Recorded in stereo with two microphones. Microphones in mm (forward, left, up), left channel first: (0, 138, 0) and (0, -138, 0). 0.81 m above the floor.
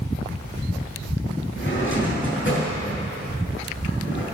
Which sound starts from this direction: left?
A drawer, at 1.6 s.